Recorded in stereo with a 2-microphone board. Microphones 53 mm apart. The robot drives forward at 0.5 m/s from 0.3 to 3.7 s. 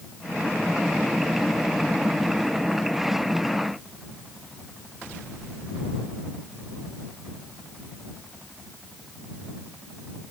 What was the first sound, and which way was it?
Only background noise.